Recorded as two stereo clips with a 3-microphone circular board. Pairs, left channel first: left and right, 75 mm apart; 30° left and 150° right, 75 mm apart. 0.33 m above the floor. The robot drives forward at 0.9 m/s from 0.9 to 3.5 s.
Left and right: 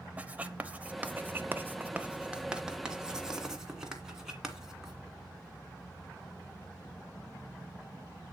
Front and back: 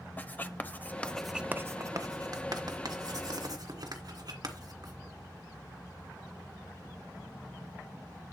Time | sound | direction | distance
0.2 | writing | 30° right | 0.7 m